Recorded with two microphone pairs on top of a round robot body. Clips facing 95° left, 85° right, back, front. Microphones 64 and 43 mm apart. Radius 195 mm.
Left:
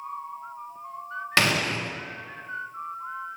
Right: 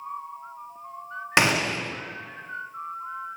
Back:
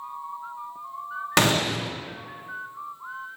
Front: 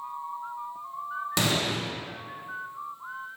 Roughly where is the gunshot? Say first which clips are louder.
Right 2 dB, back 6 dB; behind right.